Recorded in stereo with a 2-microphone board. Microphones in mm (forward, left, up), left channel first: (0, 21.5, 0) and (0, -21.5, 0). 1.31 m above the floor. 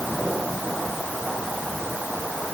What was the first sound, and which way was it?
Only background noise.